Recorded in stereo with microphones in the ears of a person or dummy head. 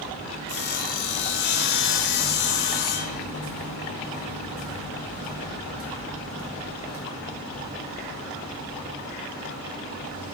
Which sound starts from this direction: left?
Sawing, at 0.5 s.